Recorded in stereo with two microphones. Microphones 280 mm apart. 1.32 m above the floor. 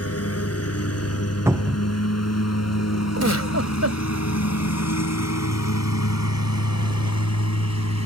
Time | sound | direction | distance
0.0 | a lawn mower | 55° left (ahead or behind) | ?
1.5 | a cupboard door | 10° right (ahead or behind) | ?
3.2 | a giggle | 65° right (ahead or behind) | ?